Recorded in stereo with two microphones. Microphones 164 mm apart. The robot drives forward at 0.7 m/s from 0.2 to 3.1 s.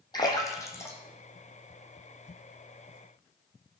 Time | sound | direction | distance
0.1 | a splash | 25° left (ahead or behind) | 0.9 m